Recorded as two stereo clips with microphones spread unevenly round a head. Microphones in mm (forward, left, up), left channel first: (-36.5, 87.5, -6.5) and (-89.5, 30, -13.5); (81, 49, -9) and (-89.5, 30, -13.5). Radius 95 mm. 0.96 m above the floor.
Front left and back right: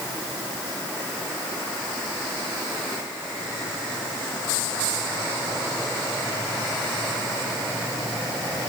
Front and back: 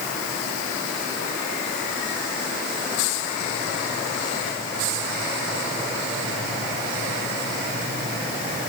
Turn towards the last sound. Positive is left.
No sound to turn to.